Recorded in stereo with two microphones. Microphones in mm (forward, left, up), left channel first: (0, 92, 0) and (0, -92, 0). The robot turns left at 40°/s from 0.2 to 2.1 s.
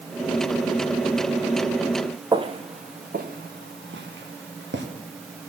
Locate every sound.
2.3 s footsteps: 25° right (ahead or behind), 0.9 m; by 4.8 s 80° right, 2 m